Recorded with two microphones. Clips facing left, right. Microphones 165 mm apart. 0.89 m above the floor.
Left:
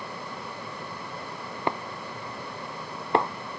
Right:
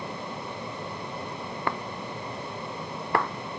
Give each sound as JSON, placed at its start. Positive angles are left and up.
{"t": 1.7, "sound": "breaking glass", "side_deg": 20}